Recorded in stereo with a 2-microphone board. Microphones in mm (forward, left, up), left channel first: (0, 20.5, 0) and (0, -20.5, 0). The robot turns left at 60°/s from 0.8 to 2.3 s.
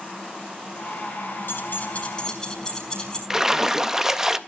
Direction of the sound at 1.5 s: 70° left (ahead or behind).